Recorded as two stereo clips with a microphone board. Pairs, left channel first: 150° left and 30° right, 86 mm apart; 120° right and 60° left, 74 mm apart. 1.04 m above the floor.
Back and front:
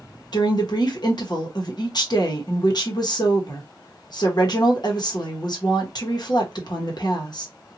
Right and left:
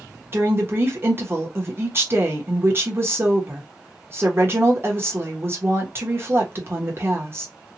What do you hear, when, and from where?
0.3 s a woman speaking: 115° left, 1.1 m